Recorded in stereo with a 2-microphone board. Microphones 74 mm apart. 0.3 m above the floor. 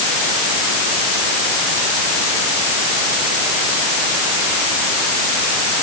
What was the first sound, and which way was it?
Only background noise.